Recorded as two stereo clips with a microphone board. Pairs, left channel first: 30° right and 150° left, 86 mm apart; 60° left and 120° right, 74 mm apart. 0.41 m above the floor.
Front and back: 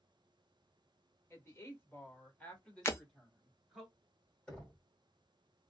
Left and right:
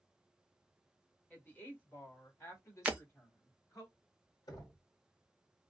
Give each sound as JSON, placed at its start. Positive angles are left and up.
{"t": 1.3, "sound": "a woman speaking", "azimuth_deg": 5, "distance_m": 1.7}
{"t": 2.9, "sound": "breaking glass", "azimuth_deg": -65, "distance_m": 0.6}
{"t": 4.5, "sound": "knocking", "azimuth_deg": 50, "distance_m": 1.8}